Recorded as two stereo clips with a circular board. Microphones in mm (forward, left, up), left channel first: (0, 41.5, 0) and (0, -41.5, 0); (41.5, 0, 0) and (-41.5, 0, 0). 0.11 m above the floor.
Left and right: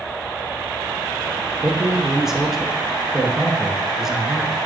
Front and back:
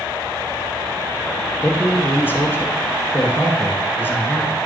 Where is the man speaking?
15° right, 1.2 m.